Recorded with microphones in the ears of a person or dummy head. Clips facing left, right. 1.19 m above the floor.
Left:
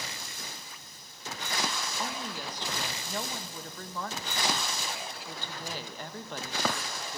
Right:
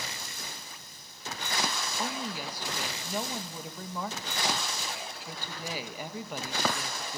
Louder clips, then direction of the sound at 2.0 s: Right 4 dB; 5° right (ahead or behind).